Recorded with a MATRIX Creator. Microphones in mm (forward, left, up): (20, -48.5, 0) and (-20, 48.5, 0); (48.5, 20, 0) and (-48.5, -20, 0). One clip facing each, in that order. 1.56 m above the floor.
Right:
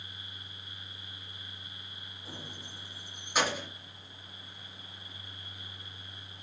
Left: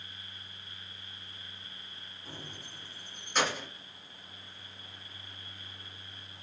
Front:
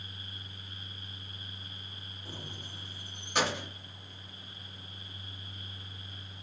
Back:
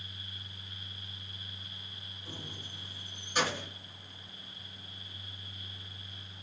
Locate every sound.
2.2 s keys jangling: 10° left, 3 m; by 3.7 s 15° left, 1.0 m